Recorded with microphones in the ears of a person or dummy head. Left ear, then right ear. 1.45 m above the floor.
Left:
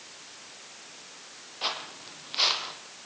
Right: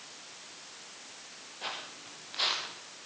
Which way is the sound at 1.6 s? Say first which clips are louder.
Left 7 dB; 30° left (ahead or behind).